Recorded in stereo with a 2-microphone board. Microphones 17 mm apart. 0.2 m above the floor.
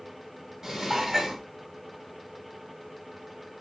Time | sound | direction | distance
0.6 | dishes clattering | 20° right (ahead or behind) | 1.0 m